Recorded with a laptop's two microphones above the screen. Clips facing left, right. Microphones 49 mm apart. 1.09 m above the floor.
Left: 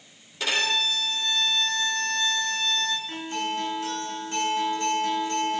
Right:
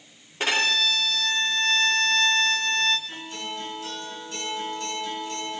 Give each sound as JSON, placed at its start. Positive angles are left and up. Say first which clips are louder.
{"t": 0.4, "sound": "a violin", "louder": "right 2 dB", "side_deg": -40, "distance_m": 2.5}
{"t": 3.1, "sound": "a guitar", "louder": "left 5 dB", "side_deg": 35, "distance_m": 5.0}